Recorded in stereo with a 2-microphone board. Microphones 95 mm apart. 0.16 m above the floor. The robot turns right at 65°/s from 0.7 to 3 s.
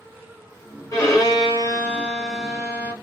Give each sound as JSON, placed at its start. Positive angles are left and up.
{"t": 0.9, "sound": "a violin", "azimuth_deg": 80, "distance_m": 1.3}